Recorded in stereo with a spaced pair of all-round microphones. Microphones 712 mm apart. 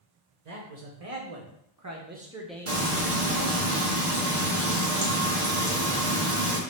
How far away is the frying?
About 1.2 m.